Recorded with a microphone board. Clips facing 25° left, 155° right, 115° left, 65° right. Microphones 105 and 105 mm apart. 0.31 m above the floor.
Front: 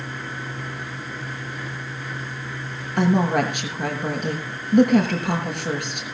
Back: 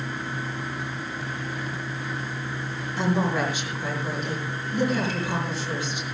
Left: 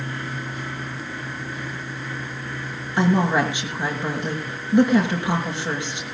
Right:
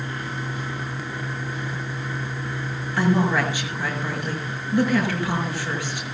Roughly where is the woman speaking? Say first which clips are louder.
Front 5 dB, left 2 dB; ahead left.